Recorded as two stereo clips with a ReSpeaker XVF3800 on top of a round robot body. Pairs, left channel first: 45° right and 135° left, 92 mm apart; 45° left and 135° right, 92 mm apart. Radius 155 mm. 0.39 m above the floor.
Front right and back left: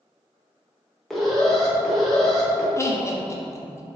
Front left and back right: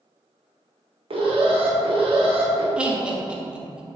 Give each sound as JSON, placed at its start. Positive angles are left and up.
{"t": 1.1, "sound": "an alarm", "azimuth_deg": -130, "distance_m": 1.0}
{"t": 2.8, "sound": "laughter", "azimuth_deg": -65, "distance_m": 0.8}